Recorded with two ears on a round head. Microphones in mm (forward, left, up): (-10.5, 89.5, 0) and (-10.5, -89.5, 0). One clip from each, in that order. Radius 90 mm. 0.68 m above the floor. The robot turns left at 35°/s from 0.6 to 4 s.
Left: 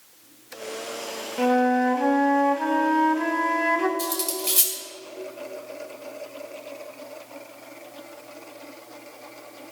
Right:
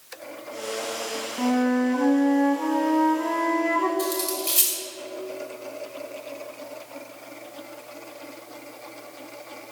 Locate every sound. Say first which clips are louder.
1.4 s a flute: left 4 dB; 135° left, 0.8 m; by 3.9 s 45° left, 0.8 m
4.0 s cutlery clinking: right 1 dB; 10° left (ahead or behind), 1.9 m